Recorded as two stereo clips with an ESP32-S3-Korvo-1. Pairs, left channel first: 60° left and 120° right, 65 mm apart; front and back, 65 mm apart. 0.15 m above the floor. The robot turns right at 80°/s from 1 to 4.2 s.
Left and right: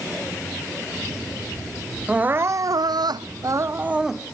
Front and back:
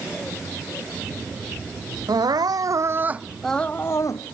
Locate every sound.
2.1 s crying: 165° left; by 4.3 s 25° right